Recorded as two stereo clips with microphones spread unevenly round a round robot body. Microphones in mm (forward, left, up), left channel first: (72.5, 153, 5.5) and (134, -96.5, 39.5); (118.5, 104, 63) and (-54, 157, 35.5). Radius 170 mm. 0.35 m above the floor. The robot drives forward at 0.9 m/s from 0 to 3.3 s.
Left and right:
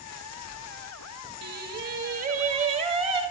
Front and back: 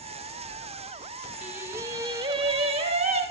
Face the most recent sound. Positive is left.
turn(degrees=-155)